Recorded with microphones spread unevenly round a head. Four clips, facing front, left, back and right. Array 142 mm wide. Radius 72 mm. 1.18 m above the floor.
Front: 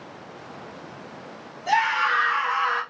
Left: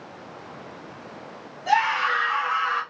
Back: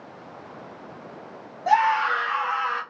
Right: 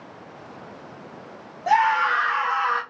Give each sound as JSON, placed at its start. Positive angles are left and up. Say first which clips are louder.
{"t": 1.7, "sound": "a scream", "louder": "right 3 dB, back 2 dB", "azimuth_deg": -145, "distance_m": 1.5}